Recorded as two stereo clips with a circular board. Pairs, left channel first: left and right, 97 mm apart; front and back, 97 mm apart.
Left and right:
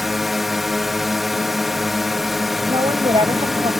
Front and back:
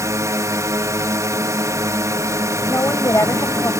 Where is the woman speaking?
60° right.